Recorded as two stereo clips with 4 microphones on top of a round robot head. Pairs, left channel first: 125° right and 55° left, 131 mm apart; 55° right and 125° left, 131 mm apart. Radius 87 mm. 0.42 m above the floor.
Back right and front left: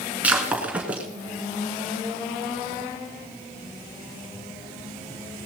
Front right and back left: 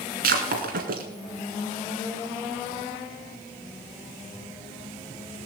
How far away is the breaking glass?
About 2.5 m.